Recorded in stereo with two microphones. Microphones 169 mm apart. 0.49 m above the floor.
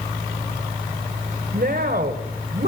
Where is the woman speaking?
60° right (ahead or behind), 2.0 m.